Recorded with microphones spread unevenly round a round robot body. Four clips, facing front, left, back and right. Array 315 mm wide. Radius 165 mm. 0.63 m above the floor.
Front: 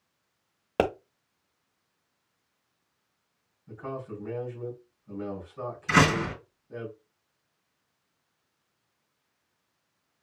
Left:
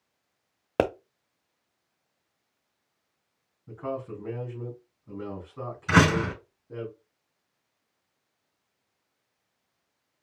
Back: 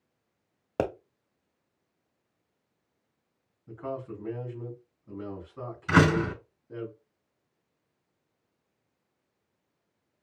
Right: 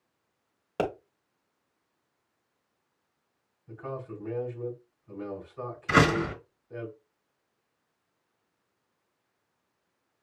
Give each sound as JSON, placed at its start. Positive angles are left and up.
{"t": 0.8, "sound": "a pop", "azimuth_deg": 65, "distance_m": 1.0}
{"t": 3.7, "sound": "a man speaking", "azimuth_deg": 120, "distance_m": 3.5}
{"t": 5.9, "sound": "a door slam", "azimuth_deg": 125, "distance_m": 4.5}